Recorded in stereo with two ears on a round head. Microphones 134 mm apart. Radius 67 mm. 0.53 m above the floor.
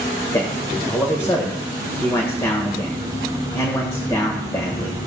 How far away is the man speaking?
About 1.8 m.